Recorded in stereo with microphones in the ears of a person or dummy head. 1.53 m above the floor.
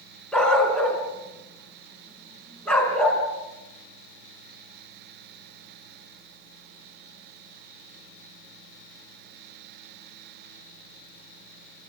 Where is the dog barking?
10° left (ahead or behind), 4.5 m.